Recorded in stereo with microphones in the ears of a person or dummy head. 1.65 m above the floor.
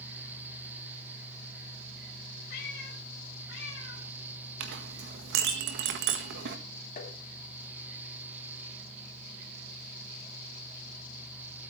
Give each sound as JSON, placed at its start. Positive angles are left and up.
{"t": 2.5, "sound": "a cat meowing", "side_deg": 60, "distance_m": 3.0}
{"t": 4.6, "sound": "a clink", "side_deg": -65, "distance_m": 1.5}
{"t": 7.0, "sound": "tapping", "side_deg": 50, "distance_m": 2.5}